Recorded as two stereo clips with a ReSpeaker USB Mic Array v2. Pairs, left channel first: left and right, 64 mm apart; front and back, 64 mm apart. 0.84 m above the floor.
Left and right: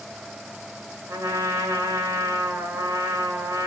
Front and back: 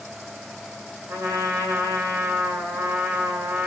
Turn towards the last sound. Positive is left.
turn(degrees=-130)